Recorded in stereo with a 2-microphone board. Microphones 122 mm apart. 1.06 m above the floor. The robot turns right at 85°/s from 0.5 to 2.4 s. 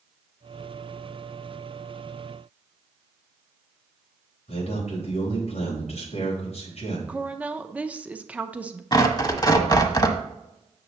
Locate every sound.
4.5 s a man speaking: 65° left (ahead or behind), 4 m
7.1 s a woman speaking: 10° right (ahead or behind), 0.7 m
8.9 s tearing paper: 35° left (ahead or behind), 1.1 m